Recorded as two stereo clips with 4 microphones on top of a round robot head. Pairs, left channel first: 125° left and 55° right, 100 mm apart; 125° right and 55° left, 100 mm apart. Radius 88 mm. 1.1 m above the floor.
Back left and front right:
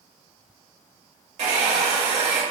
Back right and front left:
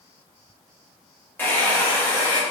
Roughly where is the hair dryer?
Ahead right.